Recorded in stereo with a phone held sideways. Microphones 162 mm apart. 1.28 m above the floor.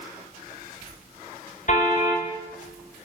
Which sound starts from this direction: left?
A car horn, at 1.7 s.